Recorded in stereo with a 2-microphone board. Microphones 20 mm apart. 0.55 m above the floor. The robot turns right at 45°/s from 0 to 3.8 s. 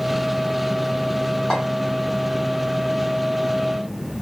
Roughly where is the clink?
Left.